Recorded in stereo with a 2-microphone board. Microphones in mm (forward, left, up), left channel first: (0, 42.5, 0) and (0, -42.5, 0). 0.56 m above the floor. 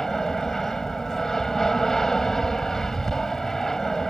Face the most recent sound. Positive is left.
turn(degrees=5)  # may be behind; listen again after turning